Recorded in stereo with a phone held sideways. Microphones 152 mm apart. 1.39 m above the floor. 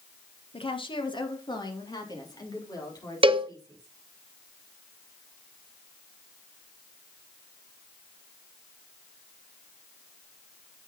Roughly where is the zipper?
No zipper in this recording.